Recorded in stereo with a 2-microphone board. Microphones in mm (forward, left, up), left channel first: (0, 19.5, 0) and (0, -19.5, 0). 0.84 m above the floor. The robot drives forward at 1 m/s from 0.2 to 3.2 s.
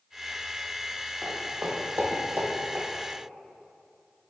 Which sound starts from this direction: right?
Footsteps, at 1.2 s.